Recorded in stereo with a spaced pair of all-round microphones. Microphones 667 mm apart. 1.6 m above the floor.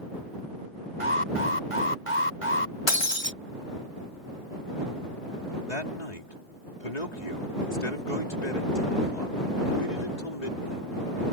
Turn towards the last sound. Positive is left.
turn(degrees=80)